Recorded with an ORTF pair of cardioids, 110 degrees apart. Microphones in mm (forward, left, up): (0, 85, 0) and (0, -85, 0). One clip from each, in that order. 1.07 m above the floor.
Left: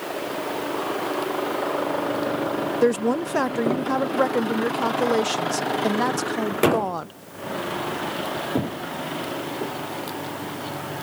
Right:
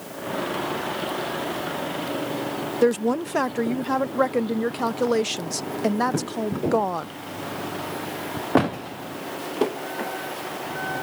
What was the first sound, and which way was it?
A woman speaking, 10° left.